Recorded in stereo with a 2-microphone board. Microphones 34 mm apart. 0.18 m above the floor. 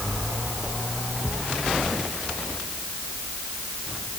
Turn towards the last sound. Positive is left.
No sound to turn to.